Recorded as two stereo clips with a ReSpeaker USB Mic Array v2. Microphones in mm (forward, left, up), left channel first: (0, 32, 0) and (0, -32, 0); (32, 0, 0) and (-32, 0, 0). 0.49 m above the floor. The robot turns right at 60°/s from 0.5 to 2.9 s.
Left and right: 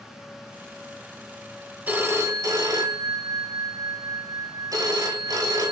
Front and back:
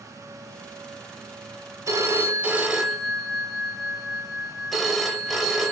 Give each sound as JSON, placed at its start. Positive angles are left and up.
{"t": 1.9, "sound": "a phone ringing", "azimuth_deg": -150, "distance_m": 1.1}